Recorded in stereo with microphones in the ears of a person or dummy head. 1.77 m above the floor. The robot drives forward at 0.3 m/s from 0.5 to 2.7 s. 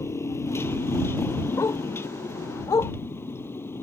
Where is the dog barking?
15° left (ahead or behind); by 2.9 s 20° left (ahead or behind).